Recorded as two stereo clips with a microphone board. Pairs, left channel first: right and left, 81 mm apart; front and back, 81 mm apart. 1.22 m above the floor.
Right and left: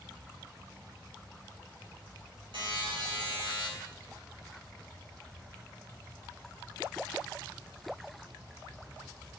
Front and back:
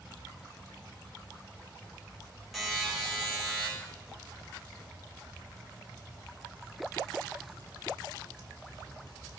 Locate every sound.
2.5 s a buzzer: 90° left, 4 m